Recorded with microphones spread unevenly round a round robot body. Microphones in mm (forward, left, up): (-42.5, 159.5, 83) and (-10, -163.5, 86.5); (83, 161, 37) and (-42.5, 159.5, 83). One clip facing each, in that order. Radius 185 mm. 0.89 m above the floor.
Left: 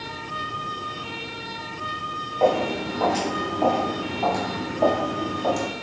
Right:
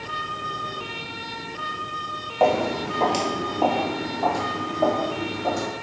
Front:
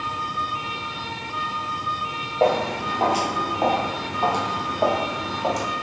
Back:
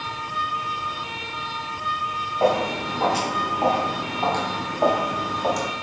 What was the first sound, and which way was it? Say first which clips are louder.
Footsteps: even, front 1 dB; 85° right.